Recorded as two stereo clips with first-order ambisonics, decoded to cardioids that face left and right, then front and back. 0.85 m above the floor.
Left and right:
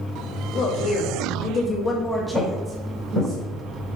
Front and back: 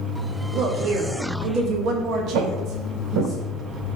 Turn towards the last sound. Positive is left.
turn(degrees=-170)